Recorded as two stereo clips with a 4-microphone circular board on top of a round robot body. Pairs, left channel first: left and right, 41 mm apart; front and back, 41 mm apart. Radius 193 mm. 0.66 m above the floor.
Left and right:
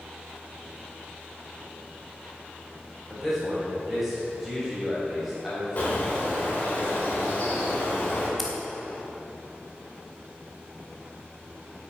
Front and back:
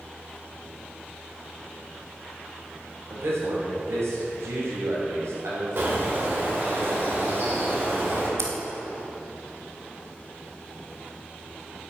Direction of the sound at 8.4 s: 175° left.